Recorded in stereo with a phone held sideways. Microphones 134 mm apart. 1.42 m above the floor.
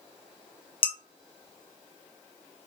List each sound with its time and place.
0.8 s dishes clattering: 40° left (ahead or behind), 0.6 m